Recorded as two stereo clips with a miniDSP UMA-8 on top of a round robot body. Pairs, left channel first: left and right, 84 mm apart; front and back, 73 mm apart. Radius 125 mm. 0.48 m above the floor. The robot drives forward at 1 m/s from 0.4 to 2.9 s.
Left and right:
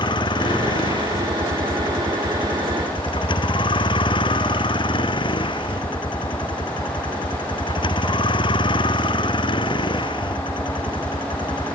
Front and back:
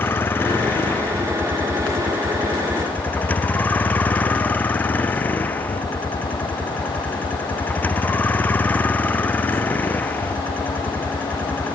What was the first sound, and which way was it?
A vehicle, 65° left.